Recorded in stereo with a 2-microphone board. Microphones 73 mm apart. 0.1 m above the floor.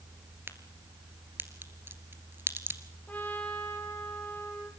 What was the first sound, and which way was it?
A crack, 30° right (ahead or behind).